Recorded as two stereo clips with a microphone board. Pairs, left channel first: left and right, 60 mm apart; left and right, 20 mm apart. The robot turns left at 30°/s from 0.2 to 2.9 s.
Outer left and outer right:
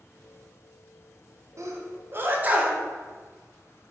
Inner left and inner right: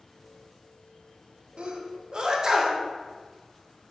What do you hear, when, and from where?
1.6 s a sneeze: 55° right (ahead or behind), 0.5 m; by 2.8 s 20° right (ahead or behind), 0.5 m